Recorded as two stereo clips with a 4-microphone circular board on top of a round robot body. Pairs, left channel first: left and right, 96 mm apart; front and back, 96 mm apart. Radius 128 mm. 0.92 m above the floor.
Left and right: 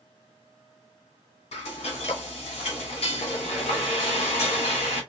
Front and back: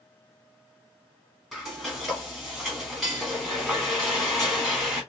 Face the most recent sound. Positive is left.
turn(degrees=85)